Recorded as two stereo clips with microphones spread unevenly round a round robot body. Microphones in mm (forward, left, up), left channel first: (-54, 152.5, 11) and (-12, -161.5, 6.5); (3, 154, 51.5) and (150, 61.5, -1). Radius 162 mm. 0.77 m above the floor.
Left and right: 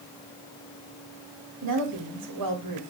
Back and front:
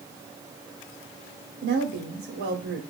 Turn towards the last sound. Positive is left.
turn(degrees=-50)